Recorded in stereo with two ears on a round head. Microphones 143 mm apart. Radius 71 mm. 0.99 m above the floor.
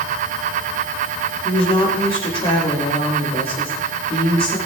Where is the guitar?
No guitar in this recording.